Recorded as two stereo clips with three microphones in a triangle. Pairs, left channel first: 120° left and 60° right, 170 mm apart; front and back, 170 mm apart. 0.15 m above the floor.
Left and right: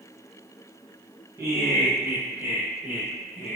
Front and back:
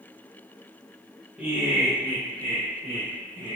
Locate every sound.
1.4 s laughter: 105° right, 1.4 m; by 3.6 s 140° right, 3.5 m